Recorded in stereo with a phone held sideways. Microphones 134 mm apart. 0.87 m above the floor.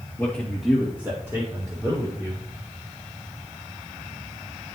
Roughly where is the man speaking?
Centre.